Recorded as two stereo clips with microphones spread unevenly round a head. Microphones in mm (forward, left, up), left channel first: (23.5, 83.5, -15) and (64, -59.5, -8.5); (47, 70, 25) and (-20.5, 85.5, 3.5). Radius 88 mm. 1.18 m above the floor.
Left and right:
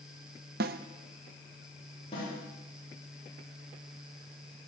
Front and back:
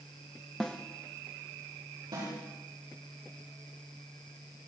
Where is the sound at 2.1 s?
165° left, 9 m.